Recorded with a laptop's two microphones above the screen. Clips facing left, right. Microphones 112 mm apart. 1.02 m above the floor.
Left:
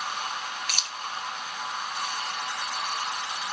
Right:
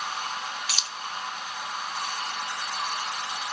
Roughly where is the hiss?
No hiss in this recording.